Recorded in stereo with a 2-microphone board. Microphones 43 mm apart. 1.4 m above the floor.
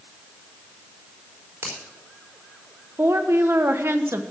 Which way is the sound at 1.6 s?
85° right.